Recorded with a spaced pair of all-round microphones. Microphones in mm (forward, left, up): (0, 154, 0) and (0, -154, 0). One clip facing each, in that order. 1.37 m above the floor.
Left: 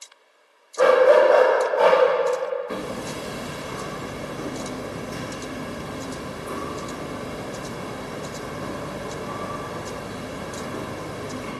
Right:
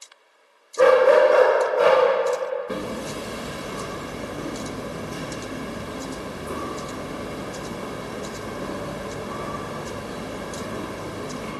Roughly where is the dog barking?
Right.